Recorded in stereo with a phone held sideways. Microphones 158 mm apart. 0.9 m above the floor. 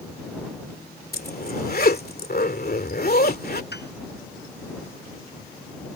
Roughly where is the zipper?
Left.